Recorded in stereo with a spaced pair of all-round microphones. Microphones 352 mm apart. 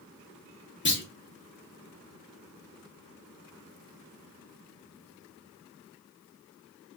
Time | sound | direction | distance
0.8 | a clunk | 35° left (ahead or behind) | 0.6 m